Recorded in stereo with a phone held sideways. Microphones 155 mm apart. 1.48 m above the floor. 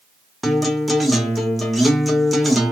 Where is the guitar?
Centre (ahead or behind), 0.6 m.